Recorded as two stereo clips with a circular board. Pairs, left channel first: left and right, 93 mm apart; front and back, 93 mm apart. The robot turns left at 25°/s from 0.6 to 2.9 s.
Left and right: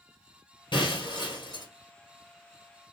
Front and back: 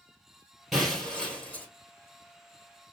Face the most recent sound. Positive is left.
turn(degrees=35)